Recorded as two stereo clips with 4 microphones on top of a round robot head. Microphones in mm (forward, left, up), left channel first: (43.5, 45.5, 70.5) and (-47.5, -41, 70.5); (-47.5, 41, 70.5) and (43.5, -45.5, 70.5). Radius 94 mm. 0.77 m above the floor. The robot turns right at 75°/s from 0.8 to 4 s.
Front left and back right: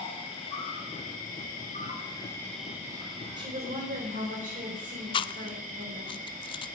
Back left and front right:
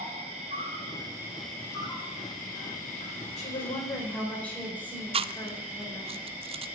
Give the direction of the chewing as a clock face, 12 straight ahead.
12 o'clock.